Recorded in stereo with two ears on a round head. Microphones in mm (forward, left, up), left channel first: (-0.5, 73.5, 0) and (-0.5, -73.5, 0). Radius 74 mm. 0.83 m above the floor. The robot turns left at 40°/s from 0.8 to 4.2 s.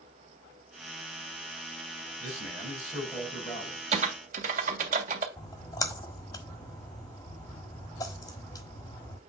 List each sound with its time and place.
2.2 s a man speaking: 155° right, 5 m; by 3.8 s 140° left, 5 m
3.9 s typing on a keyboard: 40° right (ahead or behind), 1.7 m; by 5.3 s 50° right (ahead or behind), 1.7 m
5.4 s a splash: 20° left (ahead or behind), 1.3 m